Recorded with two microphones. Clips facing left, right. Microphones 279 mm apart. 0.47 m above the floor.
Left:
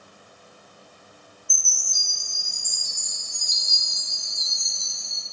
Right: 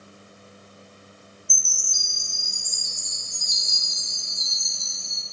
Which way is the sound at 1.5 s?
70° left (ahead or behind).